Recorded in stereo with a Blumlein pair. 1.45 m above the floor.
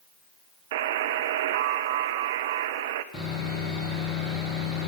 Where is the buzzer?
55° right, 0.5 m.